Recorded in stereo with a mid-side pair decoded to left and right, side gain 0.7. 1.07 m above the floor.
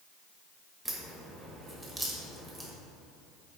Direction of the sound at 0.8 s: Straight ahead.